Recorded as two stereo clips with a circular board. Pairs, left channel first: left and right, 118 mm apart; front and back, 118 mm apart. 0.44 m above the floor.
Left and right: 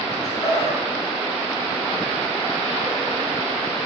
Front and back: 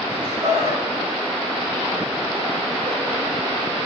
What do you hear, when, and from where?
0.1 s laughter: 135° left, 4 m; by 3.2 s 170° right, 2.5 m